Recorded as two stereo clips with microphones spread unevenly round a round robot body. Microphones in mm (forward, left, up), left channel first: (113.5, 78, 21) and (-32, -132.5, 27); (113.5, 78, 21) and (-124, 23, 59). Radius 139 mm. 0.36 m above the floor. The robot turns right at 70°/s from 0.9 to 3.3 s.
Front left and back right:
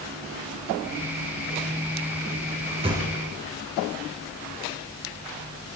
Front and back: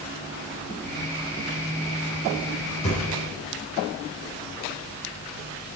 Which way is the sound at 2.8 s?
55° right.